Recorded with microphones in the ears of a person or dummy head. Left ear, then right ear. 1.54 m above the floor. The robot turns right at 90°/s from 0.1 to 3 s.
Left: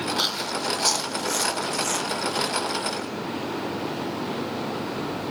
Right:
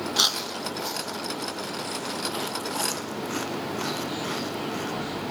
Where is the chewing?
15° right (ahead or behind), 1.7 m; by 4.9 s 60° right (ahead or behind), 1.7 m.